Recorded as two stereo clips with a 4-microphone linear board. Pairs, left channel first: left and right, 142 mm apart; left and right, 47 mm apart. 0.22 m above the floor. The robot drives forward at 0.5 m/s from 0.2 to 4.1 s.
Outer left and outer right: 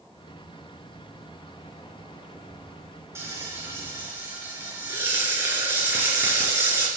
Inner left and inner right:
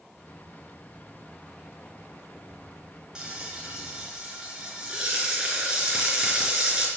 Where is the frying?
20° right (ahead or behind), 3.5 m; by 6.9 s 15° right (ahead or behind), 4 m.